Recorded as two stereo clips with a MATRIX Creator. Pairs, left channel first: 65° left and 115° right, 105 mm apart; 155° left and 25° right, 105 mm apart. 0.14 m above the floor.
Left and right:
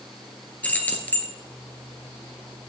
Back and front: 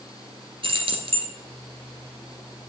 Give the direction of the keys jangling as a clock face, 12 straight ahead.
12 o'clock.